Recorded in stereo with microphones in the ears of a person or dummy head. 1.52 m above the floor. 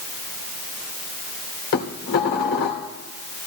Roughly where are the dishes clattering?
Left.